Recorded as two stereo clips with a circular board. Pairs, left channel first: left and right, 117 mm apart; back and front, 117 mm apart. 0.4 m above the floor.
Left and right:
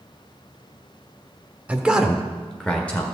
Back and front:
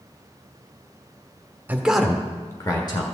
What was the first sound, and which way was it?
A man speaking, 35° right.